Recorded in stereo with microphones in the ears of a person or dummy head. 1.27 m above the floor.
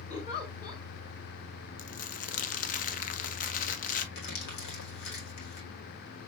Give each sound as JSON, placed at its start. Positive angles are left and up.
{"t": 0.1, "sound": "a giggle", "side_deg": 40, "distance_m": 2.5}
{"t": 1.8, "sound": "crumpling", "side_deg": 40, "distance_m": 0.7}
{"t": 4.2, "sound": "crumpling", "side_deg": 60, "distance_m": 1.9}